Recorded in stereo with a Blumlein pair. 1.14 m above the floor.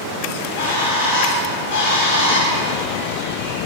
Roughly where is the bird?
Ahead left.